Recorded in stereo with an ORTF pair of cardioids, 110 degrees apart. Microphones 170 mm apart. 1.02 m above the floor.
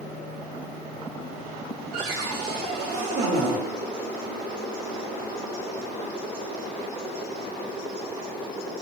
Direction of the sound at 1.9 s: 70° right.